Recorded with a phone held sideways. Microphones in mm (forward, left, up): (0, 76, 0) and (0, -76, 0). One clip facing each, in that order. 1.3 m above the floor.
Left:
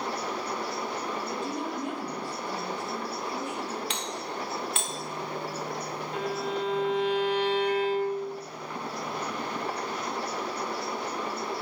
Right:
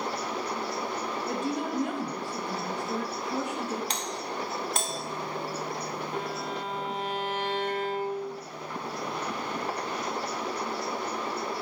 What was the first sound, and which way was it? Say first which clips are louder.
A woman speaking: right 2 dB; 70° right (ahead or behind).